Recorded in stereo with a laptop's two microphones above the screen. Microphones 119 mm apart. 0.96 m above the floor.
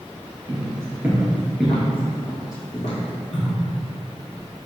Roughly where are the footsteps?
Right.